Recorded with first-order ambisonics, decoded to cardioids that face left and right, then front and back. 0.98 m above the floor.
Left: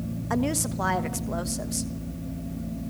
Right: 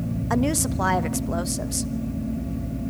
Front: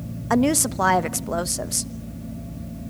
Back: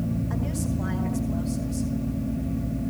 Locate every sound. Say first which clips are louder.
0.3 s a woman speaking: right 3 dB, front 11 dB; 15° right, 1.1 m